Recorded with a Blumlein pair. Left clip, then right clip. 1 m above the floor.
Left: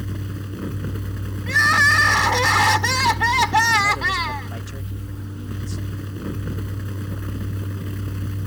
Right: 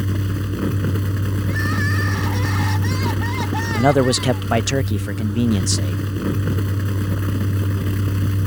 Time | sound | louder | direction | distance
0.0 | a fan | right 7 dB | 20° right | ?
1.5 | crying | left 10 dB | 30° left | ?
3.8 | a man speaking | right 2 dB | 40° right | ?